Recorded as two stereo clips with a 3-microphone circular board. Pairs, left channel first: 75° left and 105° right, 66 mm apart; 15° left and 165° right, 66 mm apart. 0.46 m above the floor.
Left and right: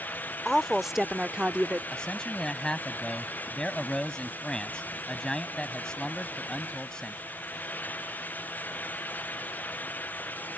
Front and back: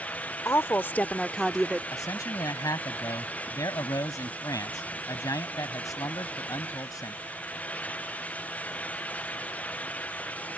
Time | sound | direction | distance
0.5 | a woman speaking | 10° right | ?
1.9 | a man speaking | 5° right | ?